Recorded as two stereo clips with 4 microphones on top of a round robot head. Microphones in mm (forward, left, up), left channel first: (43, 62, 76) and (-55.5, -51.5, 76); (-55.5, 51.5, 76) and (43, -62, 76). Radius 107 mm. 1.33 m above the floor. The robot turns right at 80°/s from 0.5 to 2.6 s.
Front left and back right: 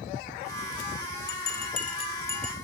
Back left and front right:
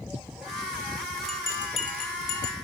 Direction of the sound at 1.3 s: 40° left.